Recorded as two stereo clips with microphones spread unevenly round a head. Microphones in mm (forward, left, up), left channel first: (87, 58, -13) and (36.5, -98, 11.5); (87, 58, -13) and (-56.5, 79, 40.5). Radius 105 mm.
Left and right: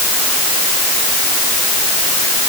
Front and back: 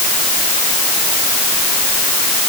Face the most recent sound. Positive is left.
No sound to turn to.